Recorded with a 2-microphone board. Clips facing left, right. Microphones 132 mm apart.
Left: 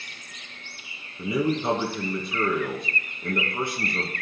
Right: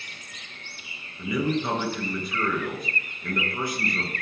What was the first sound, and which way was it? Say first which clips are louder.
A man speaking: left 1 dB; 25° left (ahead or behind).